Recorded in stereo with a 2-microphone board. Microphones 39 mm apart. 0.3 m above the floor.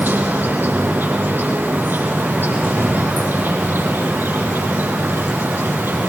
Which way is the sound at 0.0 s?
70° right (ahead or behind).